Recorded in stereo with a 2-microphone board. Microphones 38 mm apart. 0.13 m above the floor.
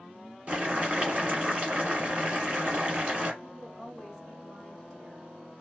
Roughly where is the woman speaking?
Centre.